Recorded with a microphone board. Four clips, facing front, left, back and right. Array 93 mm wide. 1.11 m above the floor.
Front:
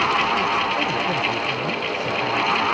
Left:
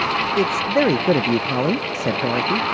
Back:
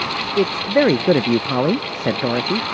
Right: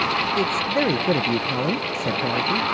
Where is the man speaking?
155° left.